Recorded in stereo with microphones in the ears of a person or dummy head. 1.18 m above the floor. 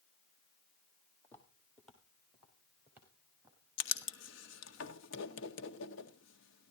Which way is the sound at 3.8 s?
70° left (ahead or behind).